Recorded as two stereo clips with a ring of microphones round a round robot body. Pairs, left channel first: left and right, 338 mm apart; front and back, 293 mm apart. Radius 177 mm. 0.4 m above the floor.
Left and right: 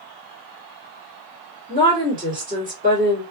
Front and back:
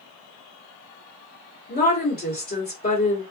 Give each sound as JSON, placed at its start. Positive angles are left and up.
{"t": 1.7, "sound": "a woman speaking", "azimuth_deg": -35, "distance_m": 1.7}